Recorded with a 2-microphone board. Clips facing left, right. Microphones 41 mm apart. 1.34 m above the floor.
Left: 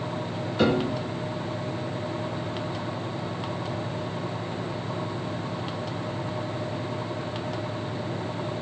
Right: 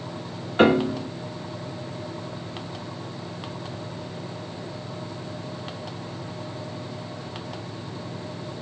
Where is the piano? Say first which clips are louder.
Right 5 dB; 45° right (ahead or behind), 1.5 m.